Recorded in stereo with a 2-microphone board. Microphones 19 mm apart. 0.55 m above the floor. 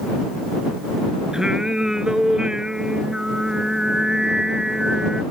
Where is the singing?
35° right (ahead or behind).